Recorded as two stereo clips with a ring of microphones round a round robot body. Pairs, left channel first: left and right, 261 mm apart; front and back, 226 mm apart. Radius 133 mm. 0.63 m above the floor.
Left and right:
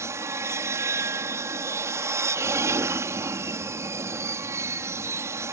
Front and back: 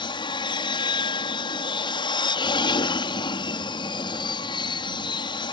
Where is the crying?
I don't hear crying.